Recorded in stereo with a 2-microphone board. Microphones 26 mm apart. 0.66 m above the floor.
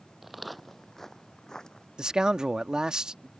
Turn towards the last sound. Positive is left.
turn(degrees=-30)  # may be behind; listen again after turning